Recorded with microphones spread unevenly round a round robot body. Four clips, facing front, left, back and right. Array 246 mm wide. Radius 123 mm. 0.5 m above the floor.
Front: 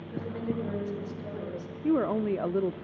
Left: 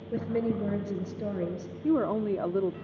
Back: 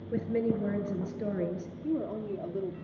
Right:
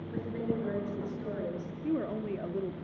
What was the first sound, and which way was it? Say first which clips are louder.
A woman speaking: left 5 dB, back 4 dB; 135° left.